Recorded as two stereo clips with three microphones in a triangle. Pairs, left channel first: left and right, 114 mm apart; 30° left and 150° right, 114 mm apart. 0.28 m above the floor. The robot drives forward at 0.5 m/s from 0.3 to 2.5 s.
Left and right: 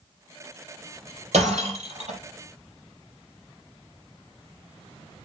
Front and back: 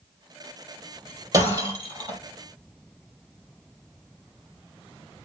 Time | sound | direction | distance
1.3 | breaking glass | 95° right | 4.5 m